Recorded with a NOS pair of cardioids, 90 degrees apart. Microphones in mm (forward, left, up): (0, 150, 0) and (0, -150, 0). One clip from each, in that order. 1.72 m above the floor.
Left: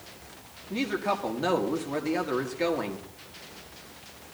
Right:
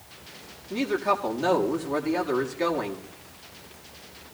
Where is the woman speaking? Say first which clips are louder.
Right 4 dB; straight ahead, 1.8 m.